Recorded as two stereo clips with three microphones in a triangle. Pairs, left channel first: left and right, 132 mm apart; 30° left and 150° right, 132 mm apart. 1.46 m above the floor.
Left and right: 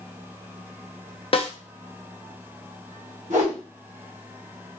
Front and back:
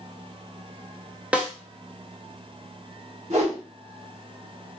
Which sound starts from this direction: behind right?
A whoosh, at 3.3 s.